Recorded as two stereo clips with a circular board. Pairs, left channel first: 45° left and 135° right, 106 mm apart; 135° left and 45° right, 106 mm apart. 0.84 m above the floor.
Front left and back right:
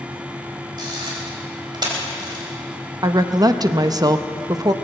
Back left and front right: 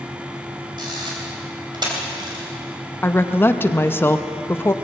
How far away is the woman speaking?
About 0.6 m.